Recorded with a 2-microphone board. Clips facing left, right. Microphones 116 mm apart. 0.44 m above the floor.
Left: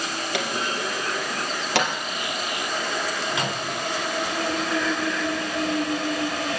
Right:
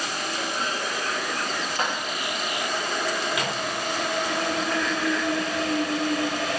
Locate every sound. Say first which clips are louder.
0.3 s a clunk: left 3 dB; 80° left, 3.5 m
3.3 s a microwave: even; 25° left (ahead or behind), 3.5 m